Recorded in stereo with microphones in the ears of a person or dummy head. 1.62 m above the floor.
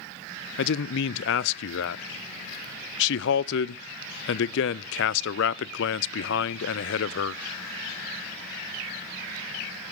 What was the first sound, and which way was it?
A man speaking, 70° left (ahead or behind).